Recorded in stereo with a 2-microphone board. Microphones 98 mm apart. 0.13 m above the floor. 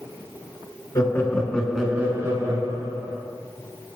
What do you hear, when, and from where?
0.9 s laughter: 40° left (ahead or behind), 1.5 m; by 3.2 s 45° right (ahead or behind), 2.5 m